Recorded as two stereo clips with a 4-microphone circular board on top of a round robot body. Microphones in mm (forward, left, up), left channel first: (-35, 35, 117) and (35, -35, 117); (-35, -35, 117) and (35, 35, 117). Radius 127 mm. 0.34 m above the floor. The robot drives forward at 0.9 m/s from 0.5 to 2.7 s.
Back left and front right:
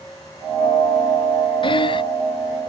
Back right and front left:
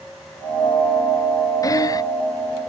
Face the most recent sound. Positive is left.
turn(degrees=175)